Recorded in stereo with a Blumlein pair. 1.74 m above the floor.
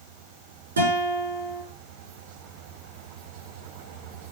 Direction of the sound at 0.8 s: 70° right.